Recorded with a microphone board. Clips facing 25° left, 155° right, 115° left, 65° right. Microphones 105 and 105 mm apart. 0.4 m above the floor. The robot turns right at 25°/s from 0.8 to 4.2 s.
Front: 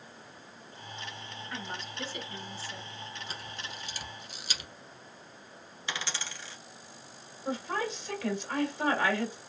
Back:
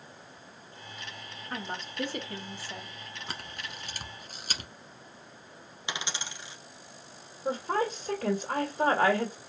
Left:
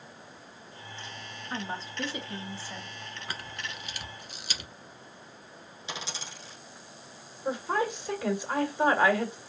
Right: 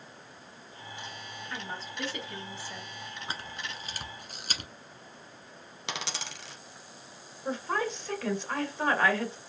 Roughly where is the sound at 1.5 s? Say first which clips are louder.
Back 4 dB, left 4 dB; behind.